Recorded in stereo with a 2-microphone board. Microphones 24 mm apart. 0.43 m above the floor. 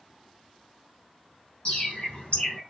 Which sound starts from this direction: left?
A bird, at 1.6 s.